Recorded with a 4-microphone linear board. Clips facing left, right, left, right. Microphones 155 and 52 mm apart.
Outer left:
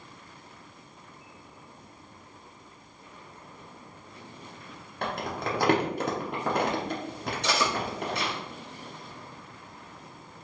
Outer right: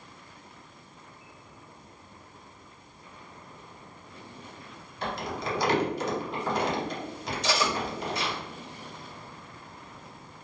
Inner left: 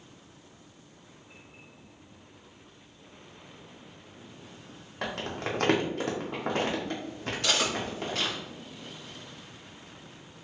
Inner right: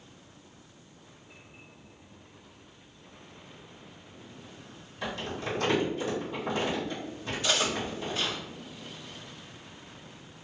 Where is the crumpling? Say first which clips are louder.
Outer left 1 dB, inner left 1 dB; 60° left (ahead or behind), 0.8 m.